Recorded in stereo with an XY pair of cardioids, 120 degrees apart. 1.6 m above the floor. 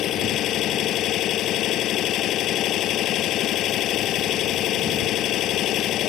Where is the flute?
I don't hear a flute.